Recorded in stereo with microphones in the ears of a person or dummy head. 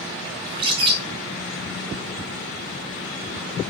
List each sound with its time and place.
0.5 s a bird: 30° right (ahead or behind), 0.5 m